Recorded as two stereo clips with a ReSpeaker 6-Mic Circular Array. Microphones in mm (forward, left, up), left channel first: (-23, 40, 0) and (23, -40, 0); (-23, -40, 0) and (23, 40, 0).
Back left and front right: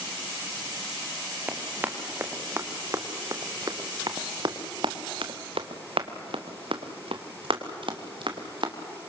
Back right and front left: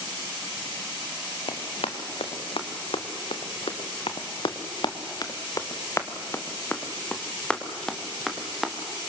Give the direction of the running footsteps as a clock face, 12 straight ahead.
4 o'clock.